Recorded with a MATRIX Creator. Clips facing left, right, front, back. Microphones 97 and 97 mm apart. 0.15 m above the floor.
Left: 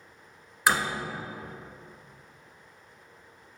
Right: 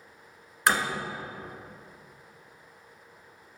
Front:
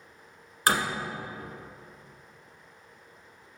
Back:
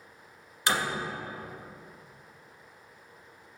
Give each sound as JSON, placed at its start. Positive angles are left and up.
{"t": 0.7, "sound": "a door slam", "azimuth_deg": 5, "distance_m": 1.3}